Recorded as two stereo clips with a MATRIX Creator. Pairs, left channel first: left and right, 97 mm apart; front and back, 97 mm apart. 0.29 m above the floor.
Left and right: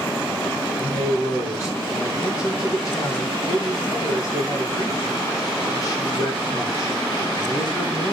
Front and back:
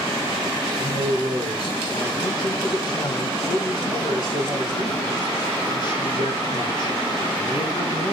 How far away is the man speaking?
About 2.5 m.